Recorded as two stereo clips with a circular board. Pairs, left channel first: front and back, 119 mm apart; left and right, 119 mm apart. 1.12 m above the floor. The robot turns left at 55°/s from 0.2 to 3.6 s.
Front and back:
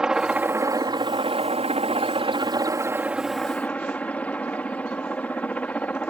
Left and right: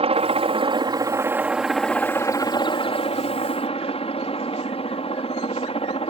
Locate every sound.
0.0 s a helicopter: 95° right; by 6.1 s 75° left